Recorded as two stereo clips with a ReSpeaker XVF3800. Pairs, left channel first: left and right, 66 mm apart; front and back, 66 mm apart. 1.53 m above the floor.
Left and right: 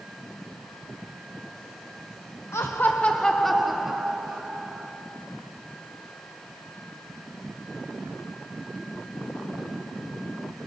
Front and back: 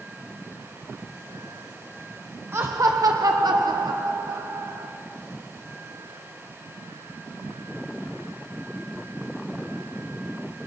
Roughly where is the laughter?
Behind left.